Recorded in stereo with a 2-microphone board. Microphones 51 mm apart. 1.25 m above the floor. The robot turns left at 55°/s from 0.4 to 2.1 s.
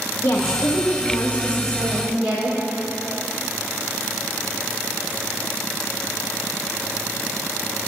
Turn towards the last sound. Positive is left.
turn(degrees=-15)